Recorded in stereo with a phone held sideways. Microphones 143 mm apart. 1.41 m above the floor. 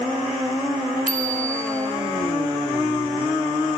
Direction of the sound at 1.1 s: 80° right.